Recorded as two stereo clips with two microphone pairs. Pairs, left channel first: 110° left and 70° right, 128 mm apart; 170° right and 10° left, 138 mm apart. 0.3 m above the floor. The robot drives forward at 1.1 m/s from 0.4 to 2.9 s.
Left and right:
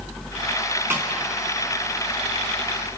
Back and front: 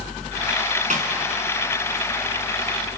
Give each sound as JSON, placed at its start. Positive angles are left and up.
{"t": 0.9, "sound": "a snare drum", "azimuth_deg": 0, "distance_m": 4.0}